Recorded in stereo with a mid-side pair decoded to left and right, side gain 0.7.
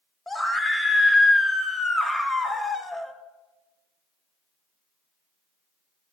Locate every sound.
0.3 s a scream: 10° left, 1.1 m